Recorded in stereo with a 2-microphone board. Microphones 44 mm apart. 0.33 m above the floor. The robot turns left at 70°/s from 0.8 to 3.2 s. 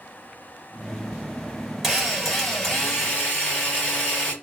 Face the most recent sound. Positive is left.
turn(degrees=20)  # may be behind; listen again after turning